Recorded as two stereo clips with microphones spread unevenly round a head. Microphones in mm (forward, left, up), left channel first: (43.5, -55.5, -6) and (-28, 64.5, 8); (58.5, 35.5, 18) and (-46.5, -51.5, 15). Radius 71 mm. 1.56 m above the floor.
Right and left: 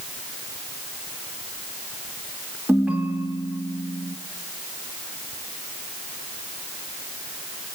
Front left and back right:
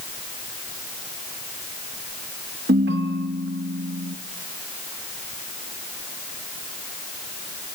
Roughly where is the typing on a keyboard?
I don't hear typing on a keyboard.